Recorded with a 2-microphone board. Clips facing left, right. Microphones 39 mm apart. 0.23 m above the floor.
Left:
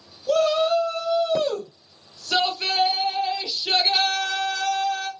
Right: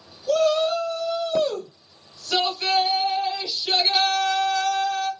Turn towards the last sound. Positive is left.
turn(degrees=20)  # may be behind; listen again after turning